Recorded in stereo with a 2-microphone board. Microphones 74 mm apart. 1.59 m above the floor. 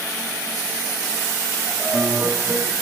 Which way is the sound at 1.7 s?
Centre (ahead or behind).